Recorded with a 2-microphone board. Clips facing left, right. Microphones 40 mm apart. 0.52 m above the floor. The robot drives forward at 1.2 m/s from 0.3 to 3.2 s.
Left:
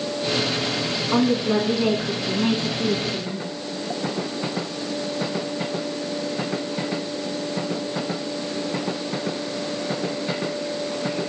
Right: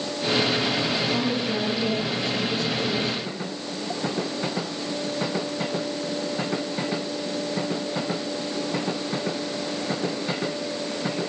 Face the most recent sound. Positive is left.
turn(degrees=80)